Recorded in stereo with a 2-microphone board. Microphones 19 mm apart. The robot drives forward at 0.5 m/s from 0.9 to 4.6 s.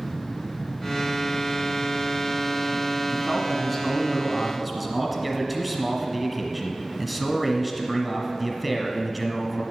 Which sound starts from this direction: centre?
A man speaking, at 3.1 s.